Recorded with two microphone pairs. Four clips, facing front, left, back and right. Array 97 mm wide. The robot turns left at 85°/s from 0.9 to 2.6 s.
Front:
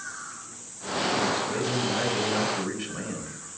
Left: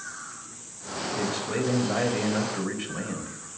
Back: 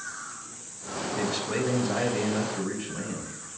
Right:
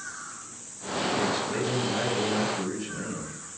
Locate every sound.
1.1 s a man speaking: straight behind, 4 m; by 3.6 s 55° left, 4 m